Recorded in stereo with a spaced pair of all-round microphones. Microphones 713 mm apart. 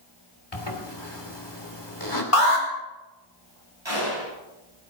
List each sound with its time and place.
0.5 s a zipper: 35° left (ahead or behind), 2.5 m
2.3 s an alarm: 45° left (ahead or behind), 3 m
3.9 s a gunshot: 40° right (ahead or behind), 10 m